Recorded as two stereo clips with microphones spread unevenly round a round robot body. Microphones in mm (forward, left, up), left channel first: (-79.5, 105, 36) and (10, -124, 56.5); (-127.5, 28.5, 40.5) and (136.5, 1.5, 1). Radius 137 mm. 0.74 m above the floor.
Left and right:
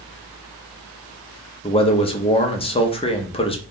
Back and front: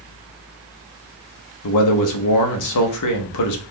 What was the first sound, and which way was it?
A man speaking, 175° left.